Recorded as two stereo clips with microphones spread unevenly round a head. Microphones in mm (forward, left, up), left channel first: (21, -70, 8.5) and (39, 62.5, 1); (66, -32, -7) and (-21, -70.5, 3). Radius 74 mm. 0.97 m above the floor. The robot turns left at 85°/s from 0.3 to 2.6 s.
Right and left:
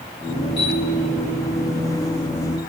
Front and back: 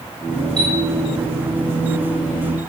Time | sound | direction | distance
0.6 | a chime | 105° right | 3.5 m